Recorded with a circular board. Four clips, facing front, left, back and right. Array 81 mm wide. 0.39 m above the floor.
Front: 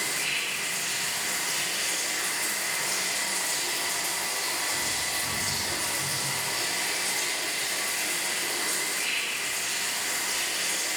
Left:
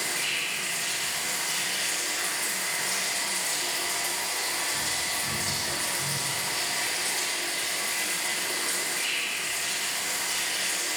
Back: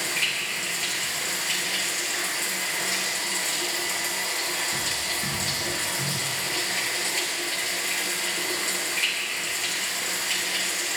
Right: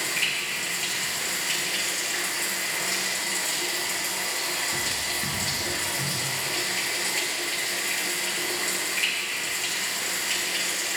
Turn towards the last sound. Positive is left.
turn(degrees=-135)